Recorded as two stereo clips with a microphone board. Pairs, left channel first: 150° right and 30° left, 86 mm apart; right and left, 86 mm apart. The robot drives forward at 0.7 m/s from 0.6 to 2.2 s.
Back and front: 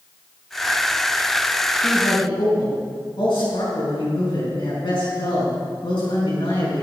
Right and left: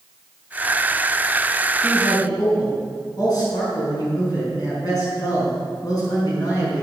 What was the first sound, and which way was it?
A man speaking, 130° right.